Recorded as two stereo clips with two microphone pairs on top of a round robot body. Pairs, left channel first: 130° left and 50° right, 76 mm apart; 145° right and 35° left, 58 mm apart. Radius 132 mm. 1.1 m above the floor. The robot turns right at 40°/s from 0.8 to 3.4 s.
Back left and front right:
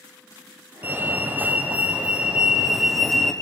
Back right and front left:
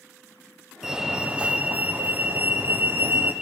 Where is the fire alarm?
50° right, 1.6 m; by 3.3 s 50° left, 1.6 m.